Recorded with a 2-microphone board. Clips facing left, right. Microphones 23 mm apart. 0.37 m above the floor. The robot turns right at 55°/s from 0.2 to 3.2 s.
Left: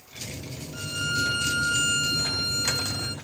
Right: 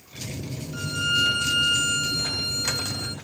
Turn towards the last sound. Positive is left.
turn(degrees=90)